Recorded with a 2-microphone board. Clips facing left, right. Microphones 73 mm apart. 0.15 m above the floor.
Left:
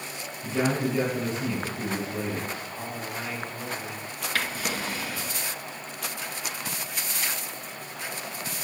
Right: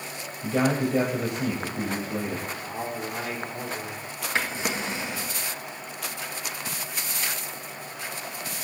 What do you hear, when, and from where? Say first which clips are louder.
0.4 s a man speaking: right 2 dB; 65° right (ahead or behind), 4.5 m
2.6 s a man speaking: right 3 dB; 55° right (ahead or behind), 4 m
4.3 s a drawer: right 2 dB; 20° right (ahead or behind), 1.4 m